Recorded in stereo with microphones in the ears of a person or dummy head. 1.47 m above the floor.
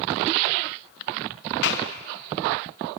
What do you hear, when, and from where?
1.6 s a clap: 70° left (ahead or behind), 1.6 m